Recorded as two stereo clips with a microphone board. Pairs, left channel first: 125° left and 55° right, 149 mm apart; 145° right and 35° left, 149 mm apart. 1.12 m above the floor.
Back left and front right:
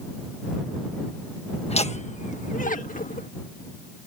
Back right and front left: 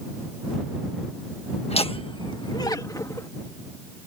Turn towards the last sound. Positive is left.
turn(degrees=145)